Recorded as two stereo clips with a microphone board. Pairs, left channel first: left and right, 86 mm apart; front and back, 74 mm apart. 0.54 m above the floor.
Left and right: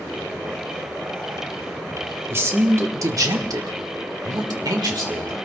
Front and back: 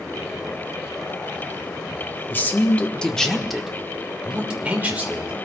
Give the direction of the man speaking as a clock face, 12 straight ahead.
2 o'clock.